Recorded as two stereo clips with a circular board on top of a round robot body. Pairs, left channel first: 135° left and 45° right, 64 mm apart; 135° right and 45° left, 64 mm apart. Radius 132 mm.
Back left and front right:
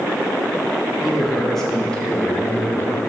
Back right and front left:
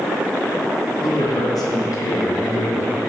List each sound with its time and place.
1.0 s a man speaking: 130° right, 3 m; by 3.0 s 175° right, 3 m